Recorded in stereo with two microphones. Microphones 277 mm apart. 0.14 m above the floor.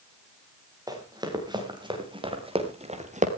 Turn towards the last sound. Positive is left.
turn(degrees=-25)  # may be behind; listen again after turning